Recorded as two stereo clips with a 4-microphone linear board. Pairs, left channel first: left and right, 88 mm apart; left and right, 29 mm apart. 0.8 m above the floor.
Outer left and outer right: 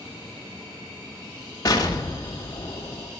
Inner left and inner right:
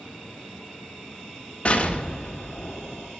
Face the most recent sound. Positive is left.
turn(degrees=40)  # may be behind; listen again after turning